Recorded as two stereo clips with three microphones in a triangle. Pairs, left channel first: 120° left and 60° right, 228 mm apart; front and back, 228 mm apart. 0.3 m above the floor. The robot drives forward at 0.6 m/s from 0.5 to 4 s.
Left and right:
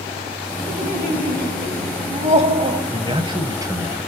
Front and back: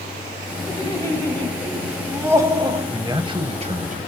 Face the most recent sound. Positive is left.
turn(degrees=-135)